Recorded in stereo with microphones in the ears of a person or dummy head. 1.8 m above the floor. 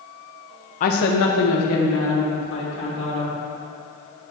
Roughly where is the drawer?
No drawer in this recording.